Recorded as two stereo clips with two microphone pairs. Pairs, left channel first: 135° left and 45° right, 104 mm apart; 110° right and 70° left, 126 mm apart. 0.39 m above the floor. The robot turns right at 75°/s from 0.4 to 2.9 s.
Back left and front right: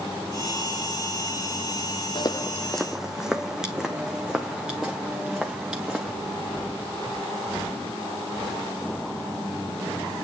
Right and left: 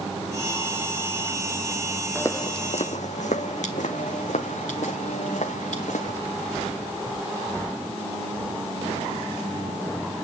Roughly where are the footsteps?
Behind.